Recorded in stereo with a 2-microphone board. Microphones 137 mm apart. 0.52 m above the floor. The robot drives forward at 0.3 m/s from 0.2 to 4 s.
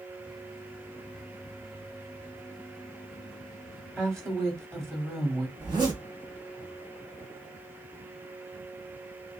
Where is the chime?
I don't hear a chime.